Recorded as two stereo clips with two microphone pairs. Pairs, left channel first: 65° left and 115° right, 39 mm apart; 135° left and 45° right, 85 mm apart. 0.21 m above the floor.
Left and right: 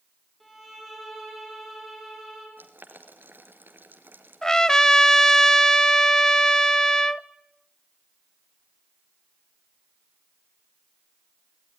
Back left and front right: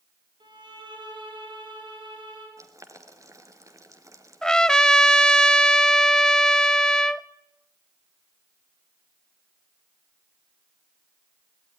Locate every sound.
0.4 s a violin: 25° right, 6 m
2.6 s boiling: 95° right, 2.5 m
4.4 s a trumpet: 85° left, 0.5 m